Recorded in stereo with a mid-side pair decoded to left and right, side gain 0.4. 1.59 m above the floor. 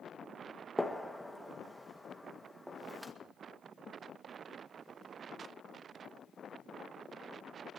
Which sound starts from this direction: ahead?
A gunshot, at 0.8 s.